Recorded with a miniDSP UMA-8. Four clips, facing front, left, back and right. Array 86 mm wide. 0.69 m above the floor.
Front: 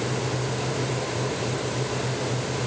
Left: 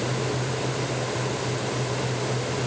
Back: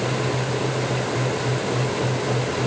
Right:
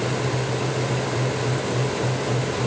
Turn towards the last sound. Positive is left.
No sound to turn to.